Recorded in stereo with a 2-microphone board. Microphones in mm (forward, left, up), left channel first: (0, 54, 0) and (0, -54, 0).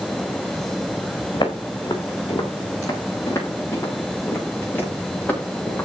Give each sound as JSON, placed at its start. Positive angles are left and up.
{"t": 1.3, "sound": "footsteps", "side_deg": 45, "distance_m": 4.0}